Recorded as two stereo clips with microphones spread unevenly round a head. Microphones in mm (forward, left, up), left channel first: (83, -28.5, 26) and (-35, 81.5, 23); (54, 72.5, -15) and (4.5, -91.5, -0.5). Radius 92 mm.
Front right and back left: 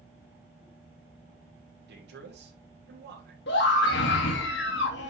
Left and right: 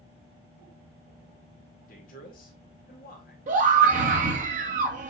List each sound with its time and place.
1.9 s a man speaking: 120° left, 2.5 m
3.5 s a scream: 65° right, 3 m